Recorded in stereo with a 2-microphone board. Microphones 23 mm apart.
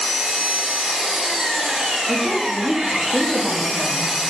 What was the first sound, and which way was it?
An engine running, 70° right (ahead or behind).